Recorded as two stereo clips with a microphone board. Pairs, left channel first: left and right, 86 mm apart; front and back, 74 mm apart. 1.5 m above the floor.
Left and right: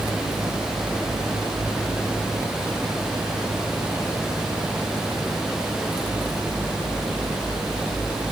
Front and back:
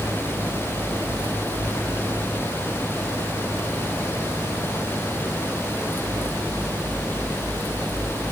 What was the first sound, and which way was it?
Only background noise.